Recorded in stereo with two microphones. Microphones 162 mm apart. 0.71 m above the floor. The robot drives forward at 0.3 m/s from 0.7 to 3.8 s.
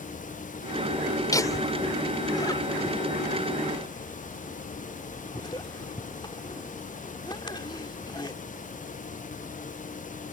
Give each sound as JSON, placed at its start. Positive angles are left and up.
{"t": 1.3, "sound": "laughter", "side_deg": 20}